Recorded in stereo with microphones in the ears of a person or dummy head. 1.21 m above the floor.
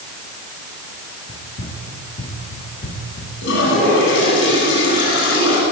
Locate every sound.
1.3 s running footsteps: 35° left (ahead or behind), 3.5 m; by 3.3 s 40° left (ahead or behind), 6 m
3.4 s a toilet flushing: 70° left (ahead or behind), 9 m